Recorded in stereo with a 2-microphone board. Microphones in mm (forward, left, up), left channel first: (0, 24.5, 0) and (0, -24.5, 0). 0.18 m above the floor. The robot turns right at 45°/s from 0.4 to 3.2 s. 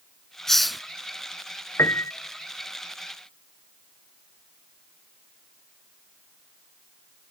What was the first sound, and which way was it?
A hiss, 10° left (ahead or behind).